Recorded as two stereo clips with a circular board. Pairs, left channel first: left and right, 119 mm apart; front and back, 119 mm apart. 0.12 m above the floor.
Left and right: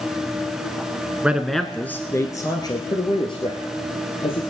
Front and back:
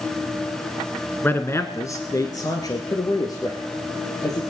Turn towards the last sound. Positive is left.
turn(degrees=55)